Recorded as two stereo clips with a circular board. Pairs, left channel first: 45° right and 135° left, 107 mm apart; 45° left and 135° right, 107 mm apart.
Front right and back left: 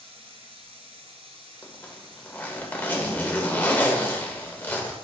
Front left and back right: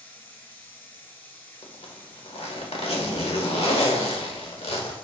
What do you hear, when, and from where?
0.0 s running water: 115° left, 1.4 m
1.6 s a zipper: 30° left, 1.1 m